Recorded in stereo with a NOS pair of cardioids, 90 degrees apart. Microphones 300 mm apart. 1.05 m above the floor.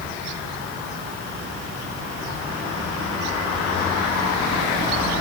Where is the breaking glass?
I don't hear breaking glass.